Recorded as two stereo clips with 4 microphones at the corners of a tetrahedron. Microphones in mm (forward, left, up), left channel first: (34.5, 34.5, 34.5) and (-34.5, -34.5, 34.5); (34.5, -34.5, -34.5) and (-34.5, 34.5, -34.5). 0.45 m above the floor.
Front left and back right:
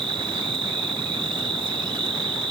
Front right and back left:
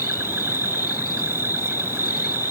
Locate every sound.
0.0 s an insect: 165° right